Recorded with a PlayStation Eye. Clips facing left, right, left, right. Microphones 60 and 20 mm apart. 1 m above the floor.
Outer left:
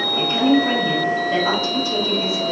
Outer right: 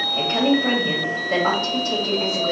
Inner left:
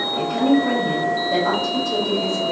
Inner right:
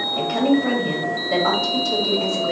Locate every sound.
0.2 s a woman speaking: 45° right (ahead or behind), 1.8 m